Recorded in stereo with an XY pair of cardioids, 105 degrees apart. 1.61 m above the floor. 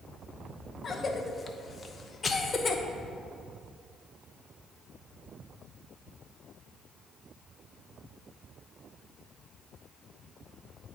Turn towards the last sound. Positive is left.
turn(degrees=30)